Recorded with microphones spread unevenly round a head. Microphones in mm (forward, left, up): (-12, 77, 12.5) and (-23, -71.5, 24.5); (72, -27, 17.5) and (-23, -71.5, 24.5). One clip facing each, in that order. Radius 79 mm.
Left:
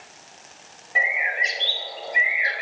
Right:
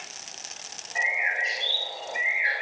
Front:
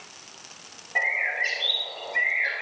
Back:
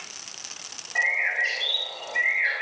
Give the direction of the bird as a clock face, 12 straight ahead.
9 o'clock.